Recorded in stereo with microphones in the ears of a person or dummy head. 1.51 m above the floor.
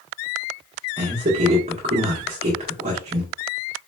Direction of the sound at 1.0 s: 35° right (ahead or behind).